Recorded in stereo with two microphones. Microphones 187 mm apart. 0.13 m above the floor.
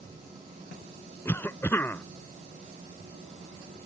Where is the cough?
10° left (ahead or behind).